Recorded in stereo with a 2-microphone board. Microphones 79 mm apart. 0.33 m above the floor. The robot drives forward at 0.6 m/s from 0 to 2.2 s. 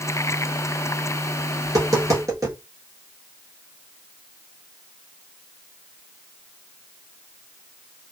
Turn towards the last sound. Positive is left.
turn(degrees=-40)  # may be behind; listen again after turning